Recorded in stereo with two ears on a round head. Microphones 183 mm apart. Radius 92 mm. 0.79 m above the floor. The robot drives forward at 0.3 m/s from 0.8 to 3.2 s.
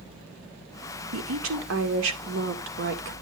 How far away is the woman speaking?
About 1.9 m.